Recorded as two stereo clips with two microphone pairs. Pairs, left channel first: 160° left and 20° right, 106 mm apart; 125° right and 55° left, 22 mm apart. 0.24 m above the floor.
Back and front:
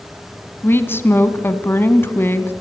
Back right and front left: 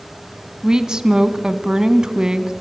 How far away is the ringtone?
No ringtone in this recording.